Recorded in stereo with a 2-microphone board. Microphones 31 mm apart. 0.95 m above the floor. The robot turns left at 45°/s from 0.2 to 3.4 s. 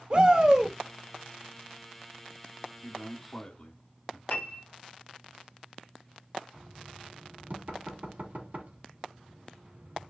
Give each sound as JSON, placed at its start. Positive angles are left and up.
{"t": 0.1, "sound": "a shout", "side_deg": -40, "distance_m": 2.0}
{"t": 2.8, "sound": "a man speaking", "side_deg": 5, "distance_m": 1.8}
{"t": 4.3, "sound": "a piano", "side_deg": 70, "distance_m": 3.5}
{"t": 6.5, "sound": "knocking", "side_deg": -60, "distance_m": 1.6}